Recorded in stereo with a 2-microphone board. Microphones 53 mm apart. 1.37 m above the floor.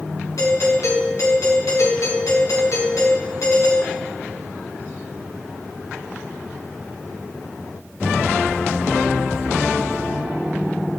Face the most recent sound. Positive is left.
turn(degrees=80)